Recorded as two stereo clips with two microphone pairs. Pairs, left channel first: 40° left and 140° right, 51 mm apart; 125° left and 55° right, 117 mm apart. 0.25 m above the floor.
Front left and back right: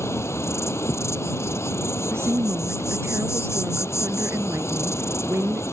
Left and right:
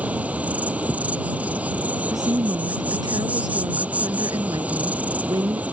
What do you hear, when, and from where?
0.0 s an insect: 20° left
2.1 s a woman speaking: 110° right